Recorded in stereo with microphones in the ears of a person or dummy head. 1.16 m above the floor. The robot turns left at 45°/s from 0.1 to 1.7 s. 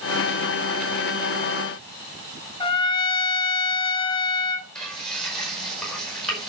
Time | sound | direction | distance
2.6 | a trumpet | 30° left (ahead or behind) | 0.8 m
4.8 | frying | 10° left (ahead or behind) | 5 m